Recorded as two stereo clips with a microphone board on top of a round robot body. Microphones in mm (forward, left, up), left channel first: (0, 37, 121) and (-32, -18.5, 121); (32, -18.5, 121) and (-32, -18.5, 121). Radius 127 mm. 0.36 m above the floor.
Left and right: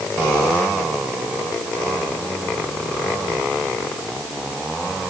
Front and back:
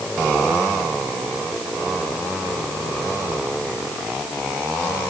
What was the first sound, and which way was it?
Only background noise.